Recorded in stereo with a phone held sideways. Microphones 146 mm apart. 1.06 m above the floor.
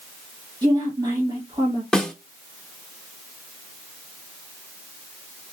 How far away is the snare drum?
About 0.9 m.